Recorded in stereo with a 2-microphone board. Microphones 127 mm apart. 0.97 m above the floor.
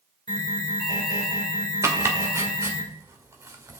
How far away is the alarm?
About 3 m.